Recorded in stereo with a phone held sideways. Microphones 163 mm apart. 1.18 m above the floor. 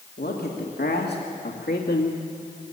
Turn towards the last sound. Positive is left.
turn(degrees=60)  # may be behind; listen again after turning